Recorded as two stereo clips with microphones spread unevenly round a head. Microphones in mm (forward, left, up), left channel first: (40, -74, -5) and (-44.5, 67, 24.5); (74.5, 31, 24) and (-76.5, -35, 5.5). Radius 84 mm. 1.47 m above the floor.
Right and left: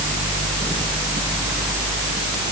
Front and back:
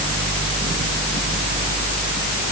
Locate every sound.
Only background noise.